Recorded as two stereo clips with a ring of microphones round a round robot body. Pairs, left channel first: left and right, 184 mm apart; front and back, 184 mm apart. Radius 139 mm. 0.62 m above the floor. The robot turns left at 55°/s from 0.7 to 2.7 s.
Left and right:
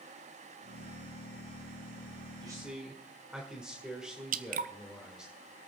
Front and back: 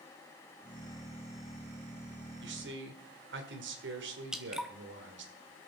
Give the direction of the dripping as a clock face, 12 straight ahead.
3 o'clock.